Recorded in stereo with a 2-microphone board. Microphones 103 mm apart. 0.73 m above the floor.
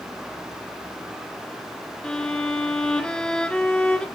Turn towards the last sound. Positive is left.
turn(degrees=10)  # may be behind; listen again after turning